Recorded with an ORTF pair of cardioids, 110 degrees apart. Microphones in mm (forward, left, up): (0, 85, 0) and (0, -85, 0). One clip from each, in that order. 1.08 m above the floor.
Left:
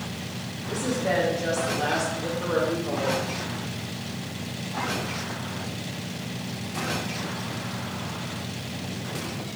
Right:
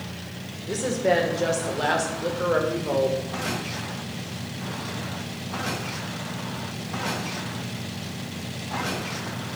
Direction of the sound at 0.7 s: 50° right.